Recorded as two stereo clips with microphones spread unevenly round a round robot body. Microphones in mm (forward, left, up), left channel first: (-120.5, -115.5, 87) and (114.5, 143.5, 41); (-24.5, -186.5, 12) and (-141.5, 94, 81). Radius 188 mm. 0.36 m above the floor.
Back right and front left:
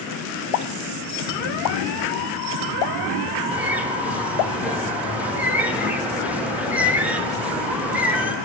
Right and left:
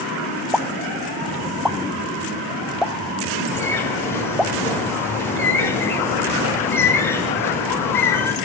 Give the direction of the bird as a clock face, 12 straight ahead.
1 o'clock.